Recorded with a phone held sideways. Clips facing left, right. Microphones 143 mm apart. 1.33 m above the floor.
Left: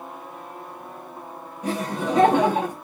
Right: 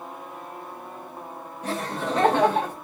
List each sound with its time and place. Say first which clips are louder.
1.6 s laughter: left 3 dB; 15° left (ahead or behind), 1.2 m